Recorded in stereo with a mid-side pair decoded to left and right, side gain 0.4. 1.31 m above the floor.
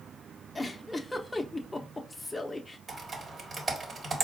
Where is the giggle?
20° left, 0.6 m.